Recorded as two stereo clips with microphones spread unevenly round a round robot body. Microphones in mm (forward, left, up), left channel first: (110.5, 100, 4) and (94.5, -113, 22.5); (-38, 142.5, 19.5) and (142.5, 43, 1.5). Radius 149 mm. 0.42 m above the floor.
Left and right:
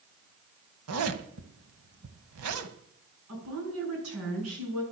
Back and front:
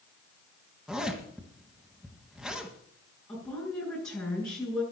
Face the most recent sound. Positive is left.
turn(degrees=-130)